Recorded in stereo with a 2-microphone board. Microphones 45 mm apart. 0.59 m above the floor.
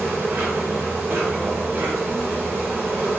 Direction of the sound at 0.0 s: 70° right (ahead or behind).